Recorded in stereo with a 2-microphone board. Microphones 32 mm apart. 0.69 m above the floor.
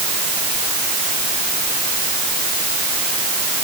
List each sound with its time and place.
Only background noise.